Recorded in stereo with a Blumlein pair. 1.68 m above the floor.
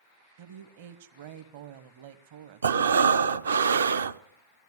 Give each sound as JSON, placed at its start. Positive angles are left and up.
{"t": 0.4, "sound": "a woman speaking", "azimuth_deg": -55, "distance_m": 0.9}
{"t": 2.6, "sound": "breathing", "azimuth_deg": -70, "distance_m": 0.5}